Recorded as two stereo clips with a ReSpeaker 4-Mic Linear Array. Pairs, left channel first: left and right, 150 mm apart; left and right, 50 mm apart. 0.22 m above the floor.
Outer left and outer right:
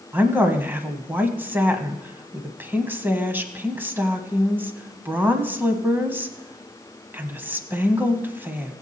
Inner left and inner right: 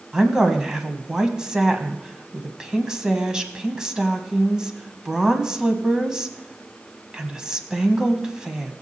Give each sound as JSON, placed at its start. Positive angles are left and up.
{"t": 0.1, "sound": "a woman speaking", "side_deg": -15, "distance_m": 1.2}